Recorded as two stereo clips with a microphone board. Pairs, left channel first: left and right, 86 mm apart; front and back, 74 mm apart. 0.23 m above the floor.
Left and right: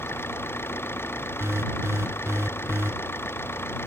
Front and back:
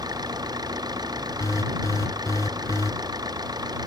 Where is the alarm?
35° right.